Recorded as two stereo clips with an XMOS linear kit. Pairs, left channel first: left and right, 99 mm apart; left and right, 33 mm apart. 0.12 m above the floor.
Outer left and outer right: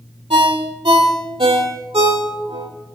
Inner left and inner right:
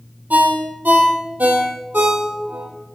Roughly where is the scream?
I don't hear a scream.